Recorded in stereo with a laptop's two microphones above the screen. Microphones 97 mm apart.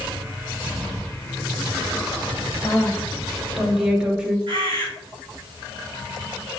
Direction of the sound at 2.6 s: 10° left (ahead or behind).